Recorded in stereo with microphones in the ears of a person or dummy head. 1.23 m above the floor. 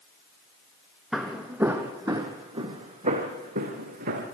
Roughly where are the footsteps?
Centre.